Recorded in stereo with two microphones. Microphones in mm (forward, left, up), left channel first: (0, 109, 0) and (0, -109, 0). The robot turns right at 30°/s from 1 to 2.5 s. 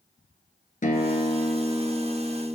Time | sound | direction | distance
0.8 | a guitar | 140° left | 0.9 m